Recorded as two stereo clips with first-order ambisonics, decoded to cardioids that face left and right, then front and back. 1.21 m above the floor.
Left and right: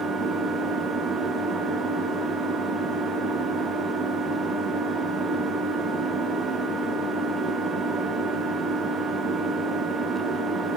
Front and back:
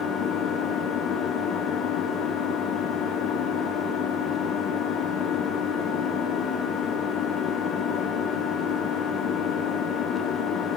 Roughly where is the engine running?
Ahead.